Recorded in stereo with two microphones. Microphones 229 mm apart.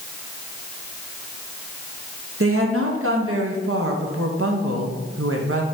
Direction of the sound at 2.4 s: 70° right (ahead or behind).